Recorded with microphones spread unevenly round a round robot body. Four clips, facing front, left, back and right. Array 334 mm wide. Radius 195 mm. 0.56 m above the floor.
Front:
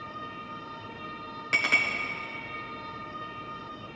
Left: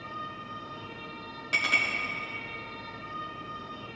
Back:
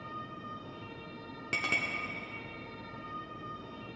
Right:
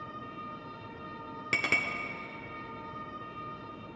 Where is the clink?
115° right, 0.6 m.